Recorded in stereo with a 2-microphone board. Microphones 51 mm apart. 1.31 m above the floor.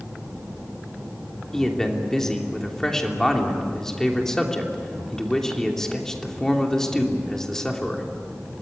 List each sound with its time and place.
1.5 s a man speaking: 10° left (ahead or behind), 3 m